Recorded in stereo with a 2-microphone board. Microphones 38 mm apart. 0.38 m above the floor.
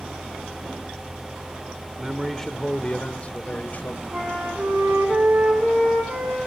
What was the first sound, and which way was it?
A man speaking, 5° right (ahead or behind).